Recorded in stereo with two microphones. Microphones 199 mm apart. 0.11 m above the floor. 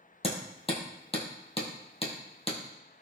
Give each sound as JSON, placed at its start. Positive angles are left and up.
{"t": 0.2, "sound": "hammering", "side_deg": 30, "distance_m": 1.9}